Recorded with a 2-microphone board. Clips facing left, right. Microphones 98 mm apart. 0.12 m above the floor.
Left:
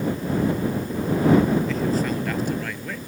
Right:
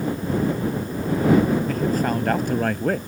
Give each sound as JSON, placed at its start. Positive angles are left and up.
{"t": 1.7, "sound": "a man speaking", "side_deg": -50}